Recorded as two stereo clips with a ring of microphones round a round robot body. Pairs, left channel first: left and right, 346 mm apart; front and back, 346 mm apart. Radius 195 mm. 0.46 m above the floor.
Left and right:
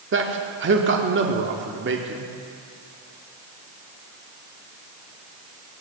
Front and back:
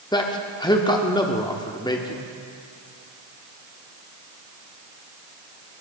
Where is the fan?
I don't hear a fan.